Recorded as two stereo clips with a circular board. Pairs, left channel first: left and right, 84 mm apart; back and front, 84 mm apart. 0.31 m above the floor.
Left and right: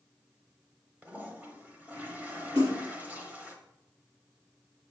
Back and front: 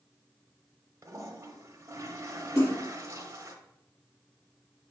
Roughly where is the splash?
Behind right.